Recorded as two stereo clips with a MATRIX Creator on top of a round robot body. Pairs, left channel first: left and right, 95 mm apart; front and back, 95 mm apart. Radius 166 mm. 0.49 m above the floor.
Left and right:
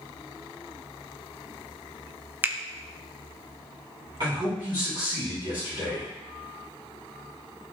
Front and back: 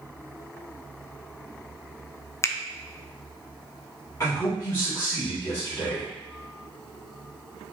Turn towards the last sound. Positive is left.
turn(degrees=-55)